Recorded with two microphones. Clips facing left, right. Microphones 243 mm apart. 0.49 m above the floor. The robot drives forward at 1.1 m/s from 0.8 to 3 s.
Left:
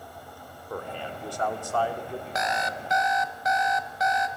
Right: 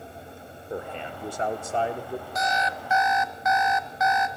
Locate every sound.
0.7 s a man speaking: 20° right (ahead or behind), 1.6 m
2.4 s an alarm clock: 70° left (ahead or behind), 0.8 m; by 4.3 s 35° left (ahead or behind), 1.2 m